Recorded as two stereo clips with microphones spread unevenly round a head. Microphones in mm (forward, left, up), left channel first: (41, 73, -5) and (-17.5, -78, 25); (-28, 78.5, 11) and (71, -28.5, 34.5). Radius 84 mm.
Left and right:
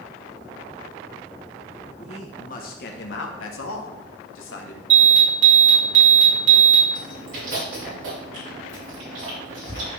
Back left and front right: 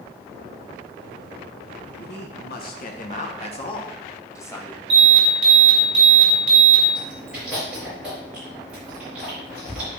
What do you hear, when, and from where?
2.0 s a man speaking: 130° left, 1.5 m; by 4.8 s 55° left, 2.0 m
4.9 s an alarm: 100° right, 4.5 m
7.0 s chewing: 130° right, 4.5 m